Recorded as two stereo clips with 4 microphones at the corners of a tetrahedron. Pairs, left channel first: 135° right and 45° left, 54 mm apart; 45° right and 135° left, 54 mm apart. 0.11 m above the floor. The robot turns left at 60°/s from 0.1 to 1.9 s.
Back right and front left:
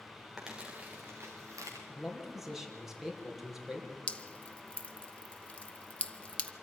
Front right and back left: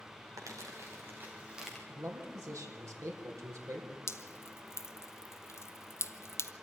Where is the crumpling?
130° left, 4.5 m; by 1.8 s 45° left, 4.5 m.